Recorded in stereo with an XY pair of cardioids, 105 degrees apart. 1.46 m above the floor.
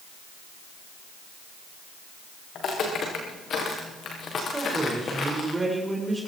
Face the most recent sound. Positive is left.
turn(degrees=-10)